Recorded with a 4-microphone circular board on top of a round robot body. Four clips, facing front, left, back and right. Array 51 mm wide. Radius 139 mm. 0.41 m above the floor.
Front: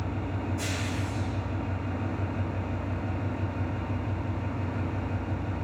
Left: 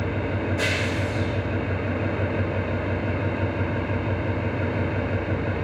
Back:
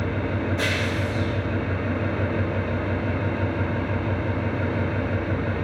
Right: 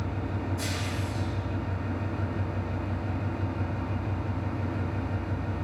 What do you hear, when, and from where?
0.0 s an engine running: 150° left, 3 m